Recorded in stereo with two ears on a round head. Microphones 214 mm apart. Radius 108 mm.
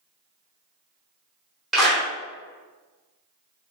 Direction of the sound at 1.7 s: Centre (ahead or behind).